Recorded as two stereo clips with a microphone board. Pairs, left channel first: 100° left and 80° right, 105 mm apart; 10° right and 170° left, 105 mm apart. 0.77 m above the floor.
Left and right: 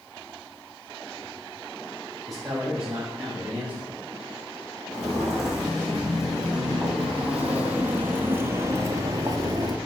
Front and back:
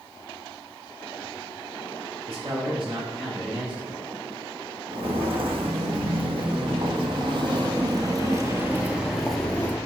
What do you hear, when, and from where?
2.3 s a man speaking: 170° right, 3.5 m; by 4.0 s 150° right, 4.5 m
4.9 s footsteps: 170° right, 3 m; by 9.8 s 65° right, 0.9 m